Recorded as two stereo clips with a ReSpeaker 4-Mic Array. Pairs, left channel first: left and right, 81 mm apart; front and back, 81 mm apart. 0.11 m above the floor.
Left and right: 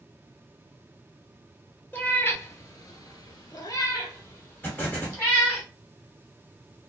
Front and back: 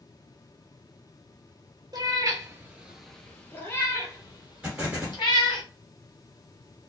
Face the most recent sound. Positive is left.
turn(degrees=120)